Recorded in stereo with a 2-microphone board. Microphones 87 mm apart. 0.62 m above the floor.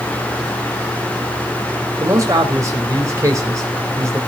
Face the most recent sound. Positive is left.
turn(degrees=-35)  # may be behind; listen again after turning